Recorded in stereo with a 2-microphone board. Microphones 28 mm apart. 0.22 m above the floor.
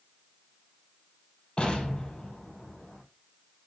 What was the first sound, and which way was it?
An explosion, 30° left (ahead or behind).